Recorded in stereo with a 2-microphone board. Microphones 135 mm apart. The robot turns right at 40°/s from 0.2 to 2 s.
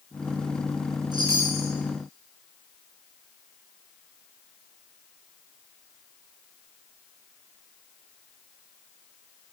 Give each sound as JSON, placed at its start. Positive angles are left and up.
{"t": 1.1, "sound": "a chime", "side_deg": -35, "distance_m": 2.5}